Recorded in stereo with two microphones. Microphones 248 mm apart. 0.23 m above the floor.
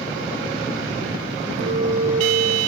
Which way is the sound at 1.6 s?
65° right (ahead or behind).